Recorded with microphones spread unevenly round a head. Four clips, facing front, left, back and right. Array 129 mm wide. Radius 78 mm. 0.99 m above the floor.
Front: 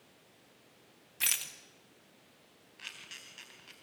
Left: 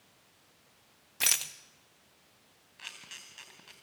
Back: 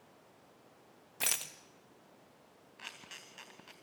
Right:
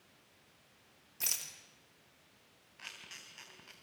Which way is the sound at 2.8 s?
175° left.